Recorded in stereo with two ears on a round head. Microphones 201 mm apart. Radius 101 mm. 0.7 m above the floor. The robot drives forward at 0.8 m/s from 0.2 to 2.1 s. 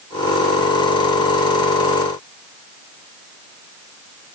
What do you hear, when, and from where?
Only background noise.